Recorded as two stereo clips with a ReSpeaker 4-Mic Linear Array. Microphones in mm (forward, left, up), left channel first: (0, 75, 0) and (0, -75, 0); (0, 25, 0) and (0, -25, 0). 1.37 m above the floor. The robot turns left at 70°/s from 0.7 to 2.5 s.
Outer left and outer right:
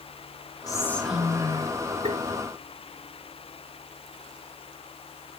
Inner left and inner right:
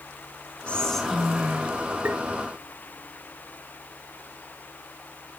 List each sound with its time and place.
0.7 s whispering: 25° left, 3 m; by 1.7 s 45° right, 3 m
2.0 s tapping: 55° right (ahead or behind), 1.7 m; by 2.2 s 50° right (ahead or behind), 1.7 m